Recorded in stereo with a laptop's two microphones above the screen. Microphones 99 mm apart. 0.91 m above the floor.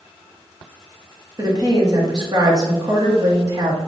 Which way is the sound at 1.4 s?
40° right (ahead or behind).